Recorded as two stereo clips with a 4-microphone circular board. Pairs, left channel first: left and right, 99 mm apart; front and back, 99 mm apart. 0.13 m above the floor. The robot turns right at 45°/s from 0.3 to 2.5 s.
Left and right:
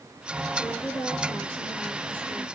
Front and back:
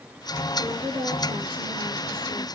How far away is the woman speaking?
About 5.5 m.